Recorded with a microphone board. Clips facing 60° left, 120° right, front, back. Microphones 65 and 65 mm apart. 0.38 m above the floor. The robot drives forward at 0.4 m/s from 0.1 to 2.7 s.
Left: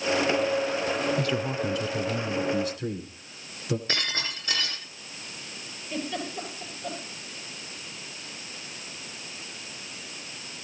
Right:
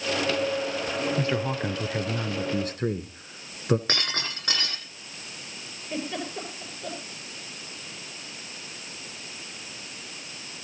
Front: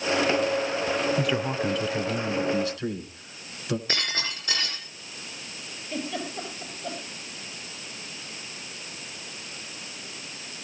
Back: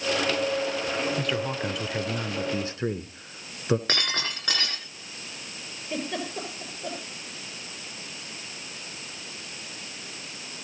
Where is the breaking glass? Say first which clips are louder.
Even, back 1 dB; 160° right, 9 m.